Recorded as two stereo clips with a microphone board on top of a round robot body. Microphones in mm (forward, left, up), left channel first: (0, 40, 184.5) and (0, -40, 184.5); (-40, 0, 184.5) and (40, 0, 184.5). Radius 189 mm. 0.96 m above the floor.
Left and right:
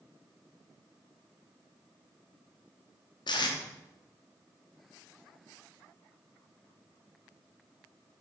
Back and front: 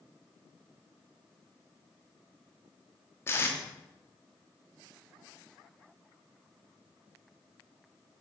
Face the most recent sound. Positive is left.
turn(degrees=120)